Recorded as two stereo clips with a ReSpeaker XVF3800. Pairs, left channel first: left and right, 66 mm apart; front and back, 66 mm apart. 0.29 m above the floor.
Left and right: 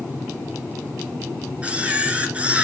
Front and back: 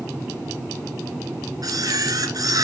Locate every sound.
1.6 s a camera shutter: 160° right, 2 m